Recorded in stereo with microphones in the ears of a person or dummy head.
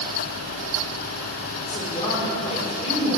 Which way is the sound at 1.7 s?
30° left (ahead or behind).